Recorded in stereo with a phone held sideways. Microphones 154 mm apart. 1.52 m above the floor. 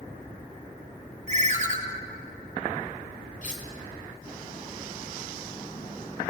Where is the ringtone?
50° right (ahead or behind), 0.8 m.